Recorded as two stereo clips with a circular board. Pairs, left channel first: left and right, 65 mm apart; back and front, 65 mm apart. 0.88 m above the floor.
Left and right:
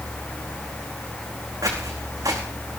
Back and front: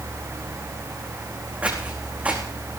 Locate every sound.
1.6 s footsteps: 65° right, 4 m